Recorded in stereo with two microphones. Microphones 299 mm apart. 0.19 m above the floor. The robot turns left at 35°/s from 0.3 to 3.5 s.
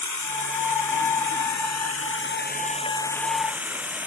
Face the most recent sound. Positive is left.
turn(degrees=-5)